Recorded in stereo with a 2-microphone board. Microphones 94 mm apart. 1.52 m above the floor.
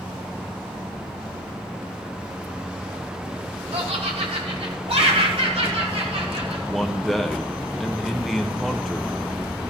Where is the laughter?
90° right, 3 m; by 6.6 s 85° right, 5.5 m.